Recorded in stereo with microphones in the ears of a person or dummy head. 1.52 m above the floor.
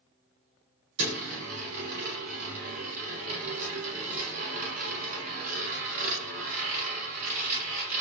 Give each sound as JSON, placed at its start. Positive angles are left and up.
{"t": 1.0, "sound": "a dropped coin", "side_deg": -50, "distance_m": 2.5}